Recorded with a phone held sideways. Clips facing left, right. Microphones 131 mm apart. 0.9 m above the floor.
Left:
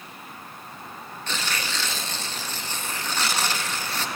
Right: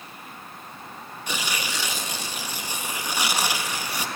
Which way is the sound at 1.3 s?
10° right (ahead or behind).